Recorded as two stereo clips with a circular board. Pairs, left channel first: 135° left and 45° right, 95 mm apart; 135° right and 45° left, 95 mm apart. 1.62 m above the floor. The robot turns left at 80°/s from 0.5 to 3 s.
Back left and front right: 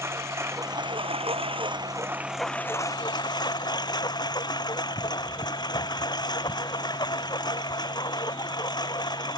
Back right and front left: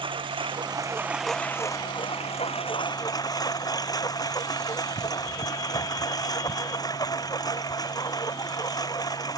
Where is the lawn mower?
15° left; by 9.4 s 175° left.